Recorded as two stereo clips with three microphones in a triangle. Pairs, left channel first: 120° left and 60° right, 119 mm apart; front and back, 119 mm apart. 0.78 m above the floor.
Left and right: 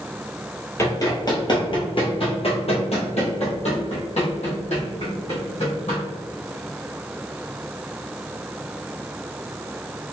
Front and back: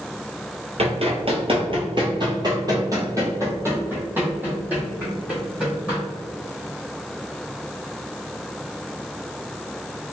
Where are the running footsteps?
Straight behind, 1.2 m; by 6.0 s 100° left, 2.5 m.